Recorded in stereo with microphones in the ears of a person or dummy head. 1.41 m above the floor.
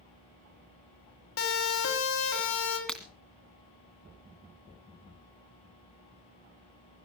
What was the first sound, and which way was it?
A siren, 80° left.